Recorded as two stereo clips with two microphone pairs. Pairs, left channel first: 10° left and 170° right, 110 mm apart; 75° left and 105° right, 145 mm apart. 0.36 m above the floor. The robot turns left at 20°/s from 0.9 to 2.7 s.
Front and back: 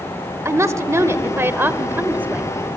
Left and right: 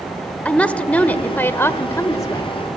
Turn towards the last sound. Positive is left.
turn(degrees=115)